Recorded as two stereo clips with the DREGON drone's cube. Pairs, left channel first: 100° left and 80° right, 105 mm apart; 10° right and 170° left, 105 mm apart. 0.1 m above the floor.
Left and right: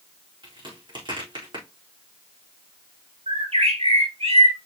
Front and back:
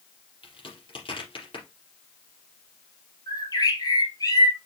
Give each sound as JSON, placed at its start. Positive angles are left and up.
{"t": 0.4, "sound": "a crack", "azimuth_deg": -40, "distance_m": 5.0}
{"t": 3.3, "sound": "a bird", "azimuth_deg": -65, "distance_m": 1.7}